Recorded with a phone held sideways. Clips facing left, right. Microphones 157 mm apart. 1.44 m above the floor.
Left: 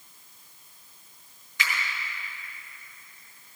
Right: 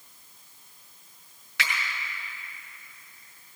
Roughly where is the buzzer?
I don't hear a buzzer.